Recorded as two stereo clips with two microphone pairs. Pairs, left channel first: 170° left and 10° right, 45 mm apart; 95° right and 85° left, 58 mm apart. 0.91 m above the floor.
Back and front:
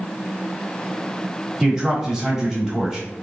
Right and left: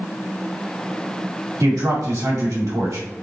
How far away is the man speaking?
About 1.8 m.